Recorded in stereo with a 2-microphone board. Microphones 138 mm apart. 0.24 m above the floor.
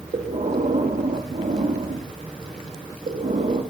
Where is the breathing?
75° right (ahead or behind), 4.5 m.